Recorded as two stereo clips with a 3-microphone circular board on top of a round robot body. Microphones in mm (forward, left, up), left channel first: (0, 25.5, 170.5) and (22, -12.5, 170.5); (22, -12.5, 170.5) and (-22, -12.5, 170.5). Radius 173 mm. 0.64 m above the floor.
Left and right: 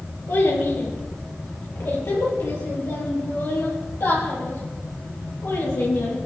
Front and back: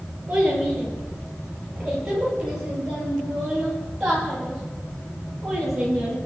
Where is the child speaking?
105° left, 9.5 m; by 6.2 s 95° left, 12 m.